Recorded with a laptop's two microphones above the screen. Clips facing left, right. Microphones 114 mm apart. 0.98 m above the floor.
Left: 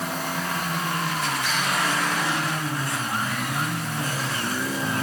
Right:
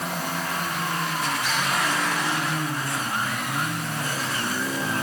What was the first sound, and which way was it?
Only background noise.